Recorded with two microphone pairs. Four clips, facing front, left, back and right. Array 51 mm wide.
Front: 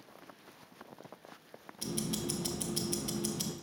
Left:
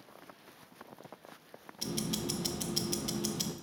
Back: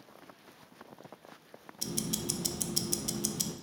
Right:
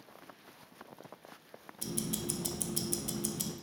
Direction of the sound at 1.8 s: 85° left.